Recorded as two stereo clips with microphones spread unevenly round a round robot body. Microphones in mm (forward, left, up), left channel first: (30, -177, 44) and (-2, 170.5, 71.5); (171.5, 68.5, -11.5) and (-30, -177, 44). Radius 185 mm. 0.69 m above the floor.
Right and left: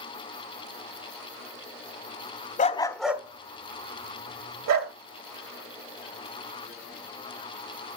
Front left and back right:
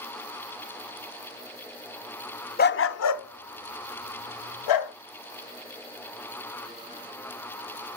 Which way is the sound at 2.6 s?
15° right.